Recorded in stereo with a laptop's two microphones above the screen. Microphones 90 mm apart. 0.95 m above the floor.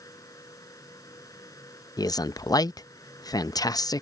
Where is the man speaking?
45° left (ahead or behind).